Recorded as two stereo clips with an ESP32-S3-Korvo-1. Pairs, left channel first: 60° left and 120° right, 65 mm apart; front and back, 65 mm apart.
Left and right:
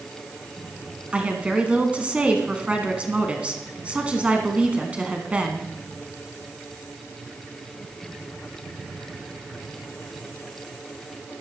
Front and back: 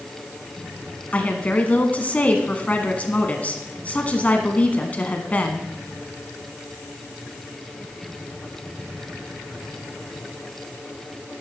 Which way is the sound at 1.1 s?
55° right.